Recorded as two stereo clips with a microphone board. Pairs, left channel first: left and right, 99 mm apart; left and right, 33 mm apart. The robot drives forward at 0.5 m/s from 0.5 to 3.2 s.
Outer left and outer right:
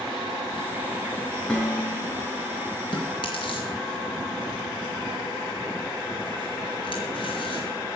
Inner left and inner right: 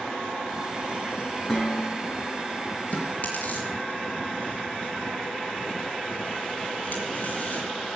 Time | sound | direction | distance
1.5 | dishes clattering | 10° left (ahead or behind) | 6.5 m
2.9 | chewing | 50° left (ahead or behind) | 5 m